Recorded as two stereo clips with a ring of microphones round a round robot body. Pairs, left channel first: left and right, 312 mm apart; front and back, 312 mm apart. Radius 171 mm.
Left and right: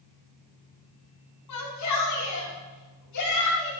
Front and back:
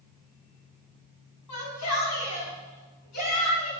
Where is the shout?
45° left, 4 m; by 3.7 s 50° left, 6.5 m.